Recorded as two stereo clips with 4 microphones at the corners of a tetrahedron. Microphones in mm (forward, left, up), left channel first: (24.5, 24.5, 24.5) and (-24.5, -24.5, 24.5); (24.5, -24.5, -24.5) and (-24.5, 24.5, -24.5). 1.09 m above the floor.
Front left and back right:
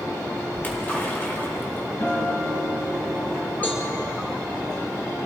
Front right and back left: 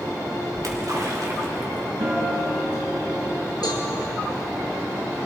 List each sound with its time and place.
0.5 s a splash: 105° left, 3.5 m
2.0 s a guitar: 95° left, 7 m
3.6 s a cowbell: 20° right, 3.5 m